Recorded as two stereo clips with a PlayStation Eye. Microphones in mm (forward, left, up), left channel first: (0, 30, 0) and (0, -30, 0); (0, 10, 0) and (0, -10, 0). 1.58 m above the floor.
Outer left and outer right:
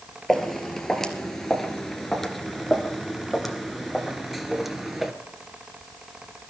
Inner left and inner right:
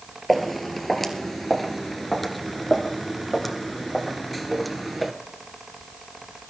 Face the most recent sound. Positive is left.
turn(degrees=0)  # may be behind; listen again after turning